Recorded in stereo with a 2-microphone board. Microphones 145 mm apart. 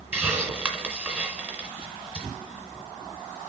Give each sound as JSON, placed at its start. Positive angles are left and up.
{"t": 0.1, "sound": "a hiss", "side_deg": -10, "distance_m": 1.5}